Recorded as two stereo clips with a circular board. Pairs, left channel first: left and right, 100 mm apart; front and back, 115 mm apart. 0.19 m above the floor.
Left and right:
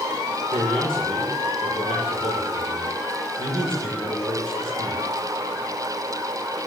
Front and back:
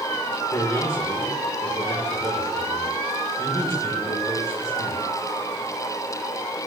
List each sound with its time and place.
0.5 s a man speaking: 65° right, 7 m